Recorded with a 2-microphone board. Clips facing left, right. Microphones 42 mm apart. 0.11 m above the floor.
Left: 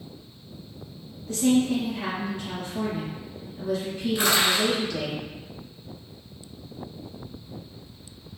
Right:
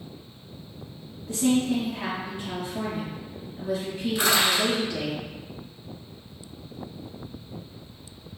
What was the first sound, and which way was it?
A woman speaking, 15° right (ahead or behind).